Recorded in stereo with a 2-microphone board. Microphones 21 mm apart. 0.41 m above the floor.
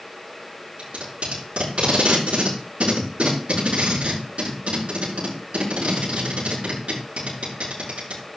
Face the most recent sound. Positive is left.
turn(degrees=-65)  # may be behind; listen again after turning